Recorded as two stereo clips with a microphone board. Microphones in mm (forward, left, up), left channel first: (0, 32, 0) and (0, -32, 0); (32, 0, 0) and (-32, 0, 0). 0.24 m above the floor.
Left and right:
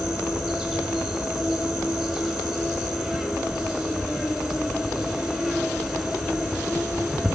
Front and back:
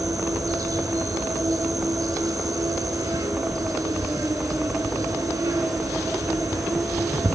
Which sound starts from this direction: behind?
An insect, at 0.0 s.